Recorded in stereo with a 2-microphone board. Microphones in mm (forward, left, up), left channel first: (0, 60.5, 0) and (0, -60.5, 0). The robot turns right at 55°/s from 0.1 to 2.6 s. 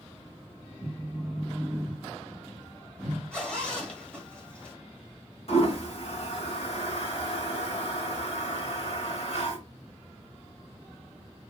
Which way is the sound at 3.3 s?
10° left (ahead or behind).